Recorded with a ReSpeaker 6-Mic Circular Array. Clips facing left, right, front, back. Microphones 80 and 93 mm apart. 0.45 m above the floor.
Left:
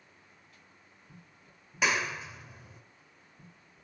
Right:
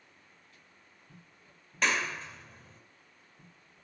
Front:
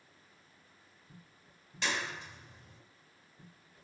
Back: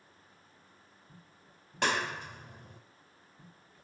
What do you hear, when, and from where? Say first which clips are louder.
1.8 s a clap: left 1 dB, back 5 dB; 170° left, 1.8 m